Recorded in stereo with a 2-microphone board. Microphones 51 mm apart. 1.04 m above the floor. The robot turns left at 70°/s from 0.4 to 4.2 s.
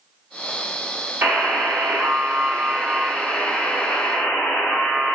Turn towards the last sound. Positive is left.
turn(degrees=115)